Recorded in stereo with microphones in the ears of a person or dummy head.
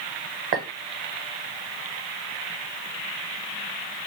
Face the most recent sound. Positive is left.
turn(degrees=-40)  # may be behind; listen again after turning